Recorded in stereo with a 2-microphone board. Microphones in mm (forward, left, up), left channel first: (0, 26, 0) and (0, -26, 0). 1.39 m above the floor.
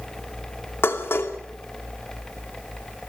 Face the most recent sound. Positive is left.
turn(degrees=50)  # may be behind; listen again after turning